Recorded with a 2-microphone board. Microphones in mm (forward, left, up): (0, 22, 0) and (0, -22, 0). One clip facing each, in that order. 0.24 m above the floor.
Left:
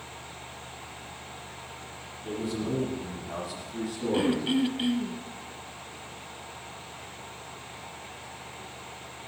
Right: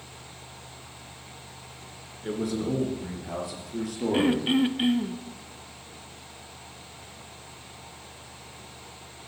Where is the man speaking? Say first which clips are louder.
Right 3 dB; 70° right (ahead or behind), 3 m; by 4.5 s 80° right, 6 m.